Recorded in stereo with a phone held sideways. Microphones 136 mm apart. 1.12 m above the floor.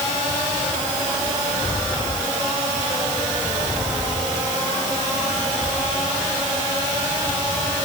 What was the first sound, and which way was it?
Only background noise.